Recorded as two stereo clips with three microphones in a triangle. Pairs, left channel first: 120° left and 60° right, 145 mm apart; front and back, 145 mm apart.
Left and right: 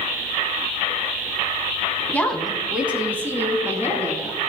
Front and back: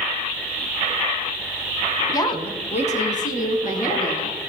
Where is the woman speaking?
50° left, 1.2 m; by 4.4 s 10° left, 3.5 m.